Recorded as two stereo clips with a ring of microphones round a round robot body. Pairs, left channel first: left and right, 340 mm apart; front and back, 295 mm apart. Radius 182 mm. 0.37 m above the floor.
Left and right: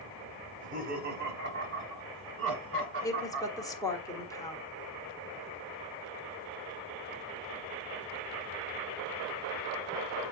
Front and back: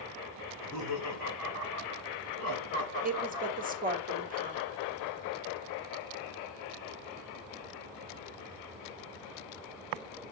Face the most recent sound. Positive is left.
turn(degrees=160)